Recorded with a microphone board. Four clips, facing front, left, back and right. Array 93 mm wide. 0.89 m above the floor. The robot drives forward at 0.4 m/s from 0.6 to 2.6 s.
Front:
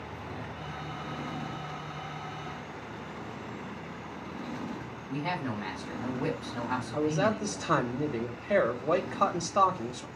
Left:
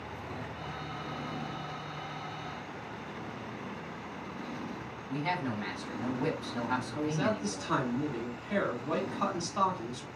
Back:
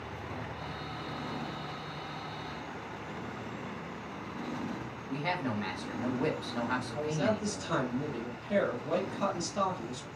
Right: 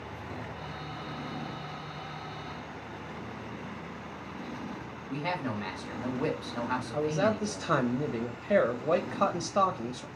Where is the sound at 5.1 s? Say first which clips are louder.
Even, even; 120° right, 1.7 m.